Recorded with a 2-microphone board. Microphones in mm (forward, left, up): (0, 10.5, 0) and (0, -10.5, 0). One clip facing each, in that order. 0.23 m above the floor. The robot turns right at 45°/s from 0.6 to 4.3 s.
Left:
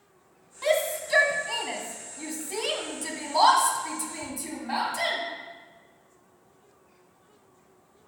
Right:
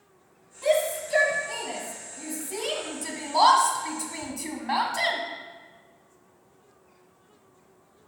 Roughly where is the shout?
Left.